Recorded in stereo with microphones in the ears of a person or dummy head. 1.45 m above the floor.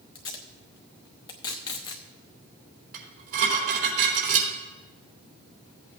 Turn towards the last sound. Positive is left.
turn(degrees=-50)  # may be behind; listen again after turning